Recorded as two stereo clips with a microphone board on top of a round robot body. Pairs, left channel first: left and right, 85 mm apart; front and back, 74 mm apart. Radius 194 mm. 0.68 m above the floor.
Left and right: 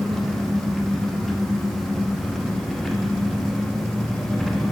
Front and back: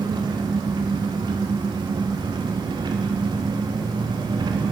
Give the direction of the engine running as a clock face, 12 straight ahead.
6 o'clock.